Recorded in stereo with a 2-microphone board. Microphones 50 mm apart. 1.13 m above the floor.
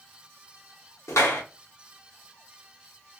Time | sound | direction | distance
1.1 | a clap | 75° left (ahead or behind) | 0.7 m